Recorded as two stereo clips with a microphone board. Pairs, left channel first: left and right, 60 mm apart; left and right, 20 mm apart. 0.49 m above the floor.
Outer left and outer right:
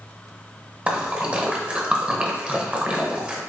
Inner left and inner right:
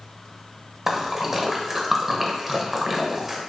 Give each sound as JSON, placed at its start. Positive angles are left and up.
{"t": 0.9, "sound": "a splash", "side_deg": -20, "distance_m": 0.6}